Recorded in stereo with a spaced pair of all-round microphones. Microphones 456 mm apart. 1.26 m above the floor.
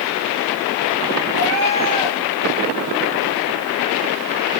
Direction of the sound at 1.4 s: 50° right (ahead or behind).